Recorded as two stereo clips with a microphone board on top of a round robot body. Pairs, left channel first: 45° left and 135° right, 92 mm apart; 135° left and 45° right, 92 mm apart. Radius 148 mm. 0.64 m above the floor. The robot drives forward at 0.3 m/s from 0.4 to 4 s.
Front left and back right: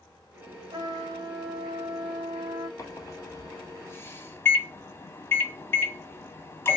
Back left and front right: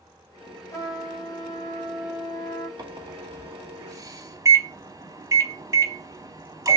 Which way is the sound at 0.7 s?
175° right.